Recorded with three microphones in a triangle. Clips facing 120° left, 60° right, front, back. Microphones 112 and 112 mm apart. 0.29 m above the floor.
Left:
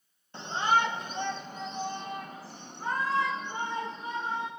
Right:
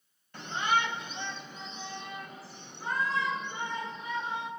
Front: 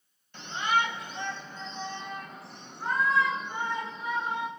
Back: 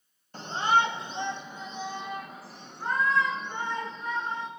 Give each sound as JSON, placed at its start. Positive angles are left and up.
{"t": 0.3, "sound": "a shout", "azimuth_deg": 165, "distance_m": 1.4}